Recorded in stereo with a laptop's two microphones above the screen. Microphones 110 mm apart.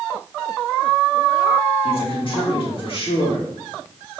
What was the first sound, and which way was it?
A man speaking, 55° left (ahead or behind).